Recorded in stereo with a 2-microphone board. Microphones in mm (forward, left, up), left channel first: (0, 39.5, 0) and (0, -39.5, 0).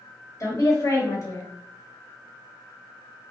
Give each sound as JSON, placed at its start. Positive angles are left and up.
{"t": 0.4, "sound": "a woman speaking", "side_deg": 40, "distance_m": 1.4}